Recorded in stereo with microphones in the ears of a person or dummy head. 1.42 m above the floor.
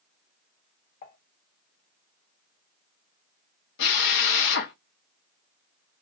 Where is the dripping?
No dripping in this recording.